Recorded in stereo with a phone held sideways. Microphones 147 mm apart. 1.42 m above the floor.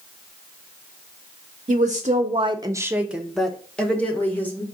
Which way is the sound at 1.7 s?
50° right (ahead or behind).